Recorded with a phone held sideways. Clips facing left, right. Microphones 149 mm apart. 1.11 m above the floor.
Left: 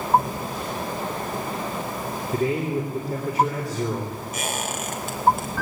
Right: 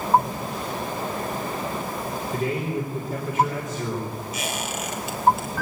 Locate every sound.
2.3 s a man speaking: 35° left (ahead or behind), 4 m
4.3 s a squeak: 50° left (ahead or behind), 3 m